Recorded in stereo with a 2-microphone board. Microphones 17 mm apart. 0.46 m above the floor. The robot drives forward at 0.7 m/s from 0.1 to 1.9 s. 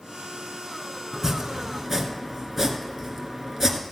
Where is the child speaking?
I don't hear a child speaking.